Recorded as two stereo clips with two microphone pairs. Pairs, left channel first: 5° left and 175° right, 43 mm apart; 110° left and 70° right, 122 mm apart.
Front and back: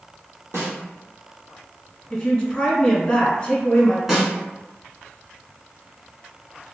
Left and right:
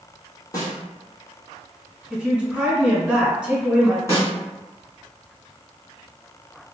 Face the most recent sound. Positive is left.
turn(degrees=120)